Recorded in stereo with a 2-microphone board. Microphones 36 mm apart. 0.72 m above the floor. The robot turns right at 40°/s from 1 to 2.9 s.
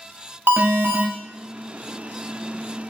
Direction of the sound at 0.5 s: 65° right (ahead or behind).